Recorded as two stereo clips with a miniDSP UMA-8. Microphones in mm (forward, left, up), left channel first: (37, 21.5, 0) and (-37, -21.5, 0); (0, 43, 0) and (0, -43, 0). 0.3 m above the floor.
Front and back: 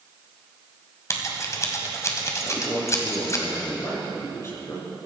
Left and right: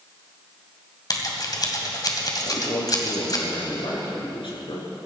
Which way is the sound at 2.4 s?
85° left.